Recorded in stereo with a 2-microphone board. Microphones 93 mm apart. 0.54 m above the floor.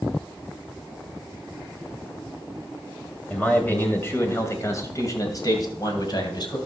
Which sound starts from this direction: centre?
A man speaking, at 3.3 s.